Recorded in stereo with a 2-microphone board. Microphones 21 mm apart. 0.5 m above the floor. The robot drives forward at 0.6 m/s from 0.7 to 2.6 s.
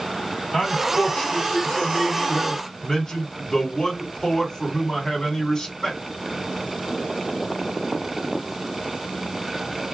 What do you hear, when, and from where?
0.5 s a man speaking: 50° left (ahead or behind), 1.8 m; by 6.0 s 40° left (ahead or behind), 2 m